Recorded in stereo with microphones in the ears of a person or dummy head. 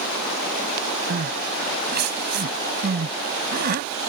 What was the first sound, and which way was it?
Crying, 55° right (ahead or behind).